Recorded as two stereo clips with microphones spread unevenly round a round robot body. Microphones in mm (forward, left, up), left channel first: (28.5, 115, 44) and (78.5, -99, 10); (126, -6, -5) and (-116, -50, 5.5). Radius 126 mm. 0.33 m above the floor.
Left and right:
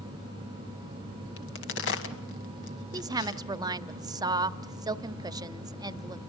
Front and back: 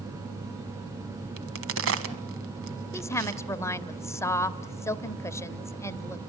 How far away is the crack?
About 1.6 m.